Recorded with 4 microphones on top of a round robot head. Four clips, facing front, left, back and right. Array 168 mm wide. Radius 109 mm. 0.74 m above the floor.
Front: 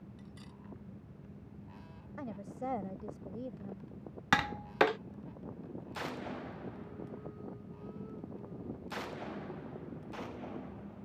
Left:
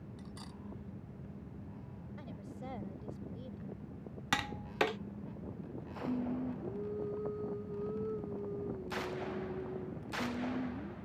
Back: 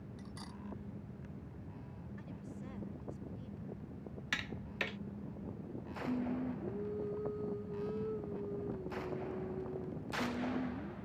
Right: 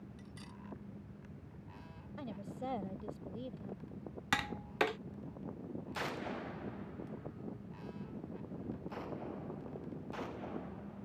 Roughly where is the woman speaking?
Ahead.